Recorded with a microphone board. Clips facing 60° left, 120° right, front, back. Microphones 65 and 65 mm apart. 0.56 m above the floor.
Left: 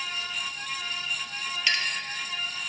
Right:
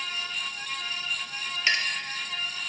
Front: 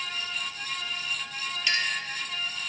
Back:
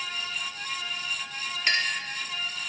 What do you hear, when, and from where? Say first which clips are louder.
1.7 s a clink: right 2 dB, back 2 dB; 170° right, 0.6 m